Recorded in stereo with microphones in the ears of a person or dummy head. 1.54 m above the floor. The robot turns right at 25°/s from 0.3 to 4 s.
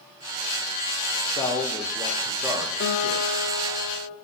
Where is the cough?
No cough in this recording.